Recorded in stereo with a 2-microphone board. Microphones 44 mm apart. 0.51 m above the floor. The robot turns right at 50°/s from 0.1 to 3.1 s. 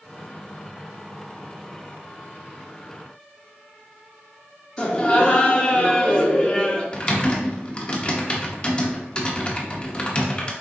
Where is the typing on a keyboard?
25° left (ahead or behind), 0.8 m.